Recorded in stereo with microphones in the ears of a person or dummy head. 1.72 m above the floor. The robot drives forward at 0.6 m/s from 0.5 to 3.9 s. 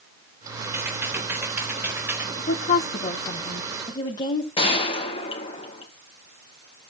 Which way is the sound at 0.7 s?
15° right (ahead or behind).